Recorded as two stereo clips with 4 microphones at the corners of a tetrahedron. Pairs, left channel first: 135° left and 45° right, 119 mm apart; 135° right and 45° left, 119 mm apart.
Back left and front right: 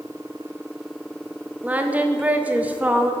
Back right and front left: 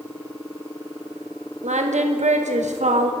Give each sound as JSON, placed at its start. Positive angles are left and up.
{"t": 1.6, "sound": "singing", "azimuth_deg": 35, "distance_m": 0.7}